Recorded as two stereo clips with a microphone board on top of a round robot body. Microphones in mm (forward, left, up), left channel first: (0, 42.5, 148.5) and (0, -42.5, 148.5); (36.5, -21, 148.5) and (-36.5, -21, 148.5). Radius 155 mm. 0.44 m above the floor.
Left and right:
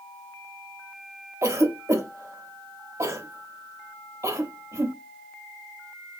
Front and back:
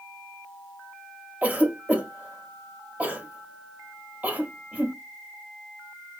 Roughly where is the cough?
Behind right.